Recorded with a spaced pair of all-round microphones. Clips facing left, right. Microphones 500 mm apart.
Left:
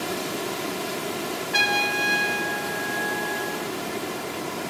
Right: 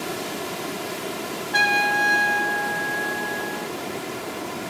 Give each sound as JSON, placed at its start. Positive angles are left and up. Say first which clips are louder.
{"t": 1.5, "sound": "a trumpet", "louder": "right 1 dB", "side_deg": 50, "distance_m": 0.6}